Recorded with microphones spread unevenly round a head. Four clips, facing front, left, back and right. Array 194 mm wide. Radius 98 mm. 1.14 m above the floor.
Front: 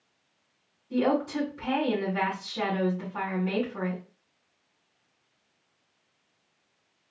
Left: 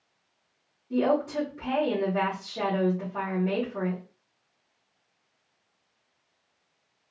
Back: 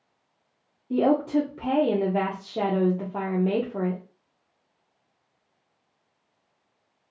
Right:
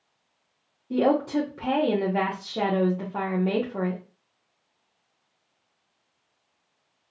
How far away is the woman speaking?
About 0.7 m.